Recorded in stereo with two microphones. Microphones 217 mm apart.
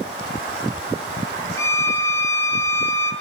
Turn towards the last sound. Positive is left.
turn(degrees=10)  # may be behind; listen again after turning